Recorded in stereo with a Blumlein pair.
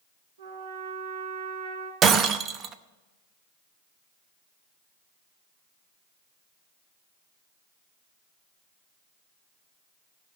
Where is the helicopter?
I don't hear a helicopter.